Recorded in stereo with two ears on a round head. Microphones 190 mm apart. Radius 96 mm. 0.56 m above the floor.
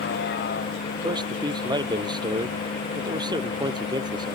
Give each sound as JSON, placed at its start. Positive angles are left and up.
{"t": 0.0, "sound": "a vehicle", "side_deg": 50}
{"t": 1.0, "sound": "a man speaking", "side_deg": -20}